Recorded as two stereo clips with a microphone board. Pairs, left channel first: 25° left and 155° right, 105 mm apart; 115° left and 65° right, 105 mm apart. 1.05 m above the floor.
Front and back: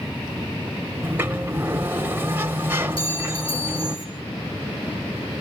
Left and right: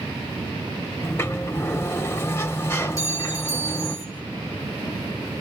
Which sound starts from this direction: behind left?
A sliding door, at 1.0 s.